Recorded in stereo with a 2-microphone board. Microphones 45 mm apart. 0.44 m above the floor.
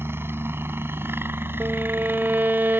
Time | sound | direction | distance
0.0 | a helicopter | 60° right (ahead or behind) | ?
1.6 | a violin | 55° right (ahead or behind) | ?